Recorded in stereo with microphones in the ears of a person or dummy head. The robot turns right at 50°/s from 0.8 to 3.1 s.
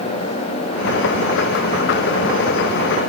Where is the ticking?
No ticking in this recording.